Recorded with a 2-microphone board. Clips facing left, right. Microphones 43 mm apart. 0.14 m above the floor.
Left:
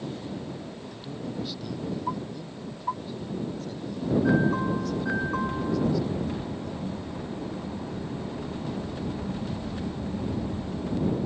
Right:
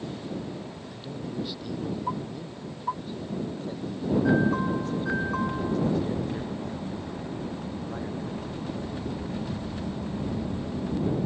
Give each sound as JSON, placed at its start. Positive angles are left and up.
{"t": 0.9, "sound": "a man speaking", "side_deg": -5}